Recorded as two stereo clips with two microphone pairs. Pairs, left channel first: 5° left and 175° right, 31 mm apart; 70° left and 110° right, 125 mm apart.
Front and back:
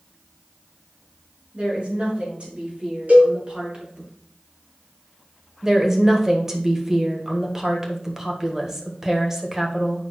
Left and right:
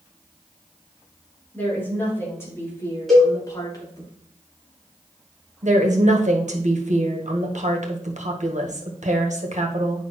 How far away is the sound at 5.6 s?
About 1.5 m.